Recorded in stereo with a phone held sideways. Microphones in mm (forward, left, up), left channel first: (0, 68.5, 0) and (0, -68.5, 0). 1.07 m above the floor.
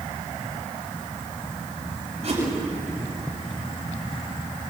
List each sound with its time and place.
2.2 s a whoosh: 55° right (ahead or behind), 7 m